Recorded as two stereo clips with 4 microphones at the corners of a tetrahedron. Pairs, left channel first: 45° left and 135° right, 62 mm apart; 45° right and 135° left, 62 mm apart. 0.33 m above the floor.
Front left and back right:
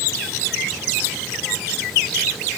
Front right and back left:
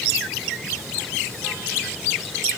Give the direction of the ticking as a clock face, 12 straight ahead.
I don't hear ticking.